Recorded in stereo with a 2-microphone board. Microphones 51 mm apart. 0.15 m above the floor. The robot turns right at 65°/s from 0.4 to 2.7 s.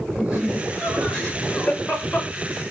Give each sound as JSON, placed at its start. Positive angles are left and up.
{"t": 0.2, "sound": "laughter", "azimuth_deg": -55, "distance_m": 1.9}